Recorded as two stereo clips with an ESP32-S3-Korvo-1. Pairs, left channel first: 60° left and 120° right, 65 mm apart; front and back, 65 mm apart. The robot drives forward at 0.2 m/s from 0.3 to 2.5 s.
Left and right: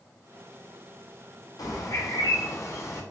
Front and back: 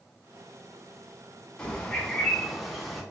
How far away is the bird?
About 0.7 m.